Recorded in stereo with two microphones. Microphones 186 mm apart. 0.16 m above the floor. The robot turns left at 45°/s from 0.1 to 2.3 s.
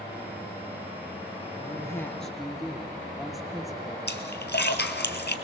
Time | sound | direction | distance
1.6 | a woman speaking | 35° left | 3 m
4.1 | a splash | 65° left (ahead or behind) | 1.5 m